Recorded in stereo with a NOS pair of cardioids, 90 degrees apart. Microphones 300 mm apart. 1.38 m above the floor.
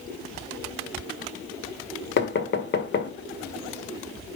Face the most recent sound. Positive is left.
turn(degrees=40)